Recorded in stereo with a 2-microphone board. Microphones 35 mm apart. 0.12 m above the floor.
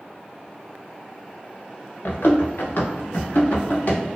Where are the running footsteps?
65° left (ahead or behind), 1.0 m; by 4.0 s 55° left (ahead or behind), 1.6 m.